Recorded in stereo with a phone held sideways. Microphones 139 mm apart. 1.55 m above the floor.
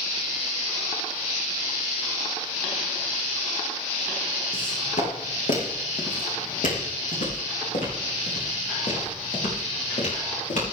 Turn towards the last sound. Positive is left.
turn(degrees=70)  # may be behind; listen again after turning